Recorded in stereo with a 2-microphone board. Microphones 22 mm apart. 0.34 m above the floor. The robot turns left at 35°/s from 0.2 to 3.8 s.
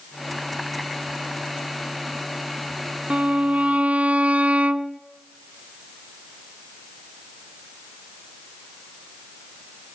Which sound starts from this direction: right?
A violin, at 3.1 s.